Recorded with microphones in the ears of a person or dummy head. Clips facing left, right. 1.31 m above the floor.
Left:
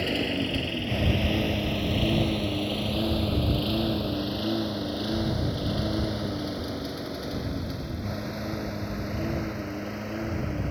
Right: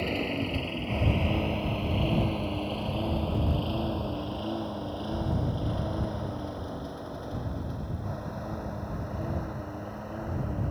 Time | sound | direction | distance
0.0 | a lawn mower | 10° left (ahead or behind) | ?